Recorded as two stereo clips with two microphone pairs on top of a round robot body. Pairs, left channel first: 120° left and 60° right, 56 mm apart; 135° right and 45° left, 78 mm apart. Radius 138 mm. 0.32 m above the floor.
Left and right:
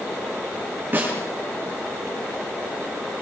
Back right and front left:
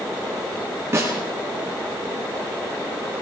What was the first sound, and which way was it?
A snare drum, 5° right.